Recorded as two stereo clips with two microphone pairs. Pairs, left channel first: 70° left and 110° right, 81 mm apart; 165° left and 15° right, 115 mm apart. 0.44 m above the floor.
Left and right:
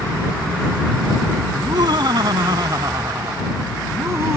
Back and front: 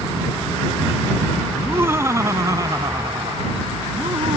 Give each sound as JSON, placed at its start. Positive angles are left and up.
{"t": 1.6, "sound": "laughter", "azimuth_deg": -85}